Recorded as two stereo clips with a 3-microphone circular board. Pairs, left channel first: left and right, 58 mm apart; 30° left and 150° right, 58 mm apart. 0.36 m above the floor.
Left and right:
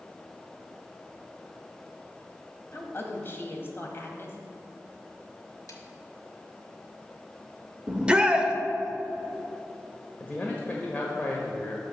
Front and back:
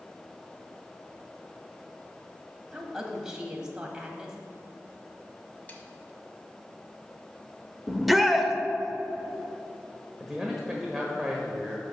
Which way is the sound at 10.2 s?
130° left.